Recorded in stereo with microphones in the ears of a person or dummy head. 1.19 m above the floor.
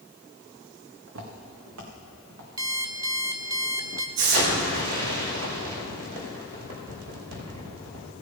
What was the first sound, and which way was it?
Footsteps, 70° right (ahead or behind).